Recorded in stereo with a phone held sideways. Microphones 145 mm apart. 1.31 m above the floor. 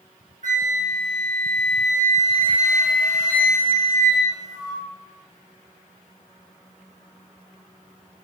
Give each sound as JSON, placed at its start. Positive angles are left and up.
{"t": 0.4, "sound": "a flute", "side_deg": -60, "distance_m": 1.5}